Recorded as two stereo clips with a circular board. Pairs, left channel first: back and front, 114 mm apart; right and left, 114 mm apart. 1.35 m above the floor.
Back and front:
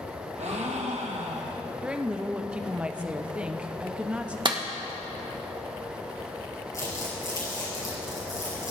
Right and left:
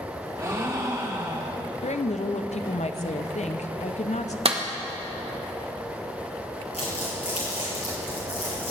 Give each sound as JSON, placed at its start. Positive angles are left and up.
{"t": 0.4, "sound": "a gasp", "azimuth_deg": 25, "distance_m": 1.6}
{"t": 1.8, "sound": "a woman speaking", "azimuth_deg": -80, "distance_m": 0.8}
{"t": 4.5, "sound": "a clap", "azimuth_deg": 50, "distance_m": 1.3}
{"t": 6.7, "sound": "crumpling", "azimuth_deg": -120, "distance_m": 5.5}